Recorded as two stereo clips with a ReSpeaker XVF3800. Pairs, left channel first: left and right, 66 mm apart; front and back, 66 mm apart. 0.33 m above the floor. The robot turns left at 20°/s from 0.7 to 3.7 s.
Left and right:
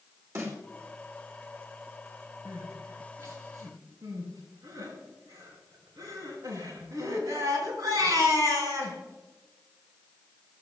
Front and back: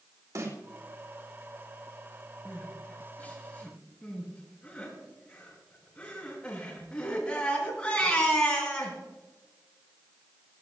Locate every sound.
0.3 s a snare drum: 135° right, 3.5 m
2.5 s crying: 50° right, 5 m; by 9.0 s 75° right, 5 m